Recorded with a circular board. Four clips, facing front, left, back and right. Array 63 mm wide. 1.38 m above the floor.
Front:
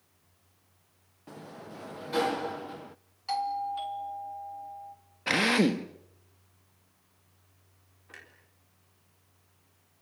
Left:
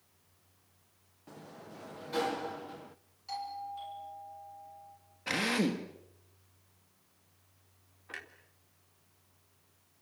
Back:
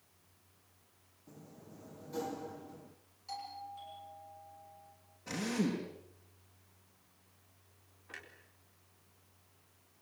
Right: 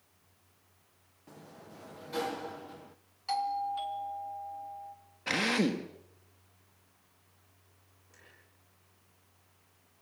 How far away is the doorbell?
About 3 m.